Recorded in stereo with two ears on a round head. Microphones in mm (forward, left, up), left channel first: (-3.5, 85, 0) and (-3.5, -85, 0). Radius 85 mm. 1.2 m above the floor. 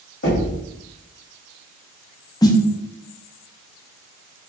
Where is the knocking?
65° left (ahead or behind), 1.7 m.